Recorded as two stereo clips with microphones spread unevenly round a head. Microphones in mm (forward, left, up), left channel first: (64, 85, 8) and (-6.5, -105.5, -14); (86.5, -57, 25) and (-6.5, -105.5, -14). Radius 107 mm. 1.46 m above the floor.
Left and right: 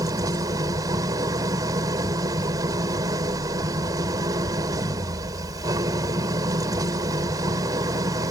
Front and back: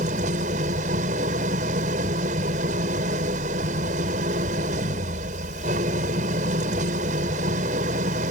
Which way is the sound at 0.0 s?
175° left.